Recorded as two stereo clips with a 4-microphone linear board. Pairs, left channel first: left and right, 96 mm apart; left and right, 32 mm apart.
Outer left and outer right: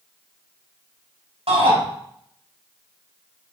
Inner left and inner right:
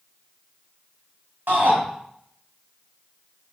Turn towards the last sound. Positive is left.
turn(degrees=-80)